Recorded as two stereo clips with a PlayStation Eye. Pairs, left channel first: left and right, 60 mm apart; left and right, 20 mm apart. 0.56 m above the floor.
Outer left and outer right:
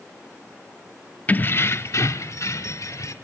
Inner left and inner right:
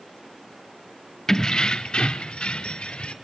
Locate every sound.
1.3 s keys jangling: 25° left (ahead or behind), 0.5 m; by 3.1 s 60° left (ahead or behind), 1.6 m